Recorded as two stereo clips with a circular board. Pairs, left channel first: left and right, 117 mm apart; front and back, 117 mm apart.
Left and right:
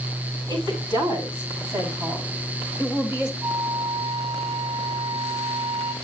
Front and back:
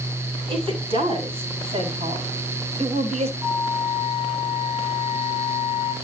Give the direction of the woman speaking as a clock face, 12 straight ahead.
5 o'clock.